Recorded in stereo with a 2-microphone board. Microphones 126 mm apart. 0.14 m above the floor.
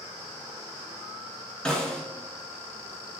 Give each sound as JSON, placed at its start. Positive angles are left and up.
{"t": 1.6, "sound": "a snare drum", "side_deg": 5, "distance_m": 1.5}